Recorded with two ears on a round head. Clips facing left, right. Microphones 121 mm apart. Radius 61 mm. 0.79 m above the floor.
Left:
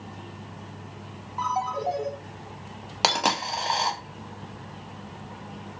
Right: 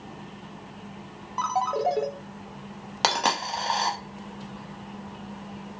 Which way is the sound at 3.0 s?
5° left (ahead or behind).